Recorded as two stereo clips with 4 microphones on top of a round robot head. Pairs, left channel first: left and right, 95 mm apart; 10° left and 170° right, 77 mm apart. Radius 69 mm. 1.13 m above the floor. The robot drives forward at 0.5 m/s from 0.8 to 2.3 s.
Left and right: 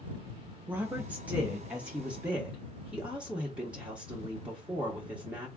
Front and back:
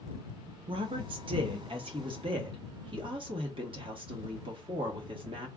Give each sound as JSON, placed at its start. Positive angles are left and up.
{"t": 0.7, "sound": "a woman speaking", "azimuth_deg": -165, "distance_m": 1.1}